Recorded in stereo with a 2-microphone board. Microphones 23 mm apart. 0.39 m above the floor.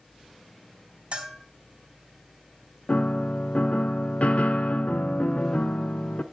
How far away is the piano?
About 0.7 m.